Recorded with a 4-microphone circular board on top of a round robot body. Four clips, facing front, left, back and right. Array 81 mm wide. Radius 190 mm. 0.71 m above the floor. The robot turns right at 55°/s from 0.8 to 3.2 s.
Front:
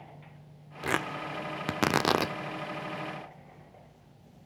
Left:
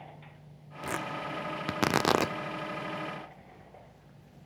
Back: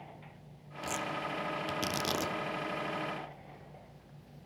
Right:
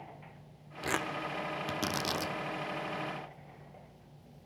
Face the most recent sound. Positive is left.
turn(degrees=115)